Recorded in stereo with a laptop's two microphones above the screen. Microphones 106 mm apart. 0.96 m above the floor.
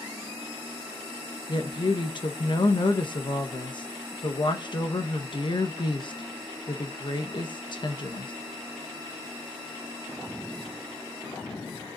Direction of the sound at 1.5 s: 50° left (ahead or behind).